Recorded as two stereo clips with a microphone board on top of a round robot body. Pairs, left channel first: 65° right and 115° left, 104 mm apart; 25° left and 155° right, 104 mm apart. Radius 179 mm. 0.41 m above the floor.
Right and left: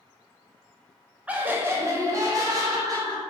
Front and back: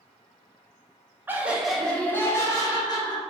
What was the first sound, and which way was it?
Laughter, 170° left.